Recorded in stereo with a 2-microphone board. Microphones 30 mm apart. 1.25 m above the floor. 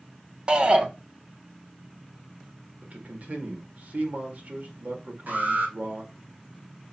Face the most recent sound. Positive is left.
turn(degrees=-75)  # may be behind; listen again after turning